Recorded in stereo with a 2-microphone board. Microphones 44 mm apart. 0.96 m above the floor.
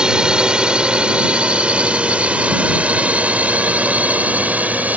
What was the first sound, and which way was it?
A drone, 20° right (ahead or behind).